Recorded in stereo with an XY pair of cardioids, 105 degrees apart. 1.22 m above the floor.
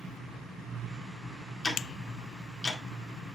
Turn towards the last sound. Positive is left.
turn(degrees=20)